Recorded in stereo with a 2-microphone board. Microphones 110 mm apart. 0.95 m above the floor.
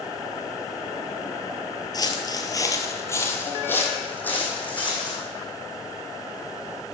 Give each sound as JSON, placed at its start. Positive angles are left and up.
{"t": 1.9, "sound": "footsteps", "side_deg": 35, "distance_m": 1.1}